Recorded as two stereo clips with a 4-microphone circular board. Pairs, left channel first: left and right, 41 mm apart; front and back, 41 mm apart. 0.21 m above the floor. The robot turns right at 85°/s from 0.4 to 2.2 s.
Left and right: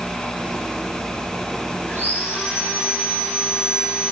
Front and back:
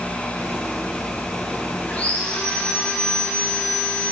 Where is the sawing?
45° left, 5.5 m; by 4.1 s 75° left, 5.5 m.